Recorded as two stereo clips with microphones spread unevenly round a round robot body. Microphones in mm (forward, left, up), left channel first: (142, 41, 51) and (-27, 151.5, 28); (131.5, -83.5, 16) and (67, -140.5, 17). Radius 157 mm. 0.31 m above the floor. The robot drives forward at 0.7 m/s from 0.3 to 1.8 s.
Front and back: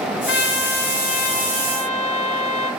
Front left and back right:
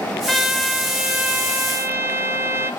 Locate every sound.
0.3 s a trumpet: 50° right, 2 m; by 2.7 s 85° right, 1.9 m